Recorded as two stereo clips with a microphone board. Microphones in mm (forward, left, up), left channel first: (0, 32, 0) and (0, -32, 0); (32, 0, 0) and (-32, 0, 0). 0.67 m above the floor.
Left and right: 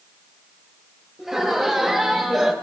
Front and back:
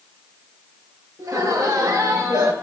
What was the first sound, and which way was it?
Laughter, 175° right.